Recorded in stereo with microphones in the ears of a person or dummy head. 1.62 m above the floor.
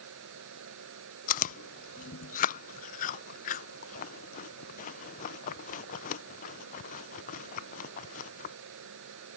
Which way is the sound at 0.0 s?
65° right (ahead or behind).